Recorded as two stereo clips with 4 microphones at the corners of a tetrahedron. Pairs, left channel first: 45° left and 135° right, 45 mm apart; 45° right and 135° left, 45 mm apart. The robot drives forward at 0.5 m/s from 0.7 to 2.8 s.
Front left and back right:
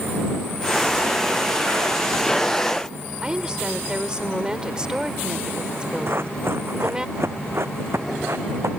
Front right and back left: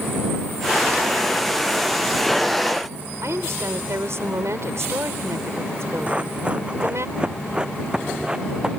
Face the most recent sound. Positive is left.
turn(degrees=-150)